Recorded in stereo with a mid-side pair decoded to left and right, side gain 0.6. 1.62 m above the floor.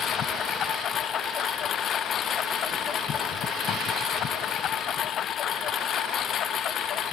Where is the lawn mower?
45° left; by 7.1 s 50° left.